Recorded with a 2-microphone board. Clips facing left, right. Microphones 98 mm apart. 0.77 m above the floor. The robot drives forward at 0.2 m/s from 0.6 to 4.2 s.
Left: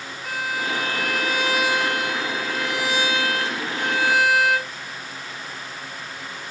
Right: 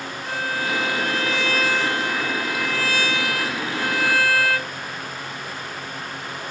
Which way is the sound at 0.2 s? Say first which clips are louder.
Even; 10° left (ahead or behind).